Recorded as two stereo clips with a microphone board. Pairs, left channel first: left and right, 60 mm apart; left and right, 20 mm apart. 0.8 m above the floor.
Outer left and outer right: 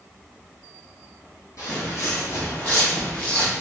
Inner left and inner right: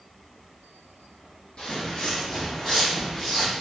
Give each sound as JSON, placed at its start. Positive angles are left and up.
{"t": 1.6, "sound": "footsteps", "side_deg": 60, "distance_m": 1.8}